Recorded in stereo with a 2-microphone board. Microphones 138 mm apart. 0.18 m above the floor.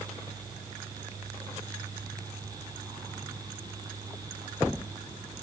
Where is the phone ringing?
No phone ringing in this recording.